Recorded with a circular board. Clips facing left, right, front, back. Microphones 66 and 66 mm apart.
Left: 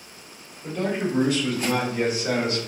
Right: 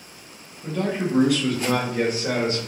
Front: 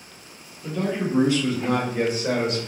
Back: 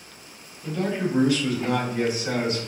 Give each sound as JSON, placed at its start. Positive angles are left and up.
{"t": 0.6, "sound": "a man speaking", "azimuth_deg": -80, "distance_m": 1.6}